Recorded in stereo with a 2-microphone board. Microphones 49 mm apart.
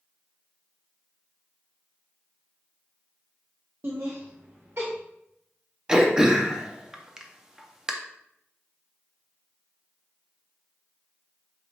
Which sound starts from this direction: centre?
Throat clearing, at 5.9 s.